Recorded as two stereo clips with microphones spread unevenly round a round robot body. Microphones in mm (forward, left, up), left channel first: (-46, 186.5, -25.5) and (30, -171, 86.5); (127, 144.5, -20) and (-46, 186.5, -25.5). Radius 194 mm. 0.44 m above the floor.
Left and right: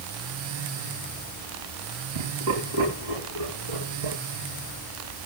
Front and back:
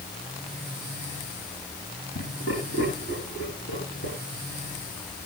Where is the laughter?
65° right, 4.5 m.